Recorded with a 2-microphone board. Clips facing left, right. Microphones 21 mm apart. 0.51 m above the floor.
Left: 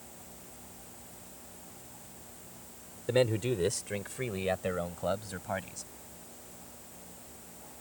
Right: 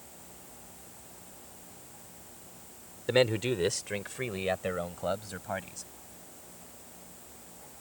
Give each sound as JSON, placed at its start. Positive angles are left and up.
{"t": 3.1, "sound": "a man speaking", "side_deg": -35}